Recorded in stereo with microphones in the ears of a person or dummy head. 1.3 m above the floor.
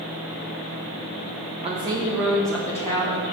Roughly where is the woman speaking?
Right.